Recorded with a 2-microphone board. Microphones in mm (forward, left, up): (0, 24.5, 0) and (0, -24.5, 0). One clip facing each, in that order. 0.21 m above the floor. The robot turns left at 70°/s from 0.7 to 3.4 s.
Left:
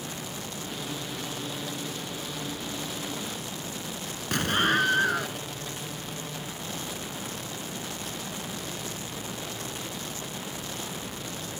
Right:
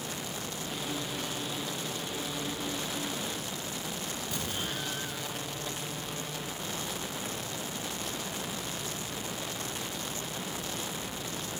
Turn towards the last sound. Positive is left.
turn(degrees=65)  # may be behind; listen again after turning